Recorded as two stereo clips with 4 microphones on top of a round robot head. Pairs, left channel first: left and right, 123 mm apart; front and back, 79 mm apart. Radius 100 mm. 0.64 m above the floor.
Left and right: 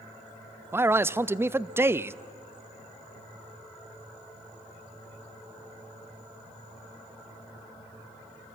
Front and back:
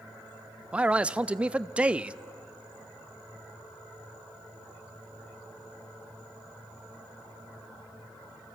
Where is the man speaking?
130° right, 0.6 m.